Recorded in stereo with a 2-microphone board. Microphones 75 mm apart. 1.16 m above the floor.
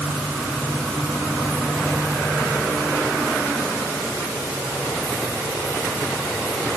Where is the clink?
No clink in this recording.